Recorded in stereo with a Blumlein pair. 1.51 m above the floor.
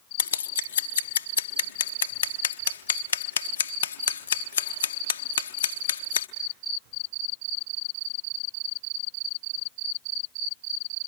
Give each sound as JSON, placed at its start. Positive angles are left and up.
{"t": 0.2, "sound": "scissors", "azimuth_deg": 65, "distance_m": 0.6}